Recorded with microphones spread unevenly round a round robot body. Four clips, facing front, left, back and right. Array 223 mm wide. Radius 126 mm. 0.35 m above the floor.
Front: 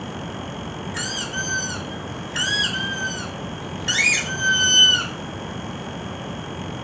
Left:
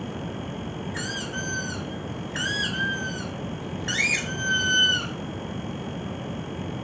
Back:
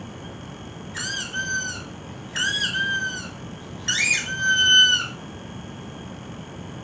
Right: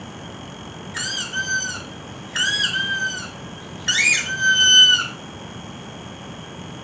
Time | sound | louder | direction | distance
0.9 | a squeak | right 2 dB, back 2 dB | 75° right | 1.3 m